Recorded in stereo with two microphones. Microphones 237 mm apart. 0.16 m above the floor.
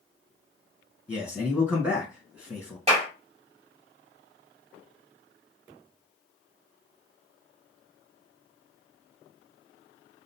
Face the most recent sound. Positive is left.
turn(degrees=-25)  # may be behind; listen again after turning